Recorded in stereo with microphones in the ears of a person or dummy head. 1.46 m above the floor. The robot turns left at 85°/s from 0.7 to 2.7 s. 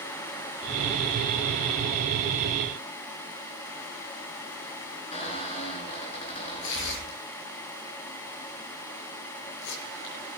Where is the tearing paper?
65° left (ahead or behind), 6 m.